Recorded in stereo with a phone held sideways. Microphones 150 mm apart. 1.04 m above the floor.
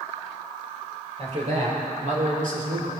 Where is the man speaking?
50° right (ahead or behind), 5 m; by 2.9 s 75° right (ahead or behind), 3.5 m.